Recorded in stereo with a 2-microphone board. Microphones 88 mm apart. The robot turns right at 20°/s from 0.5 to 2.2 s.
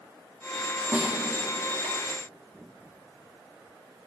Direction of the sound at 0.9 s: 30° right (ahead or behind).